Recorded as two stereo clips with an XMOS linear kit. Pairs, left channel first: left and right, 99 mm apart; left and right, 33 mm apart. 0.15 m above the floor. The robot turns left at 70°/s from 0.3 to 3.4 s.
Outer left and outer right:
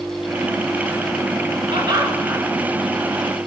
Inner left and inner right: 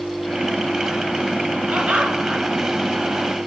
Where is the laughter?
100° right, 1.9 m; by 2.4 s 150° right, 1.9 m.